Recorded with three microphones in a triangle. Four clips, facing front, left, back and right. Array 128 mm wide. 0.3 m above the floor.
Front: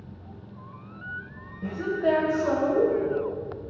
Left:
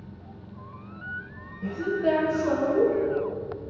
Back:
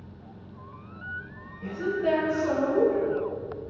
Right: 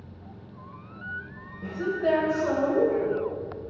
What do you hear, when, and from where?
1.6 s a woman speaking: 30° right, 1.0 m